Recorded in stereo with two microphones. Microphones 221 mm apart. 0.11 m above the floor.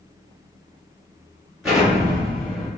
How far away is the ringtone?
No ringtone in this recording.